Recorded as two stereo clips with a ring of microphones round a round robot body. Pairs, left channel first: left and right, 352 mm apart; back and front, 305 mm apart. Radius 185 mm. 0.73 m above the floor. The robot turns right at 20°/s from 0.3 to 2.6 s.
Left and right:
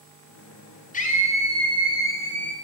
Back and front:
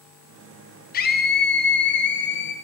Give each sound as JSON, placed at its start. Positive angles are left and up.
{"t": 0.9, "sound": "a scream", "azimuth_deg": 140, "distance_m": 0.6}